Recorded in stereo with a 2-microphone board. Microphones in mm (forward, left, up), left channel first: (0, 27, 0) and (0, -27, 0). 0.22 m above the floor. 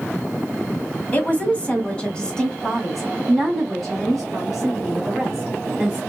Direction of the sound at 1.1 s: 30° left (ahead or behind).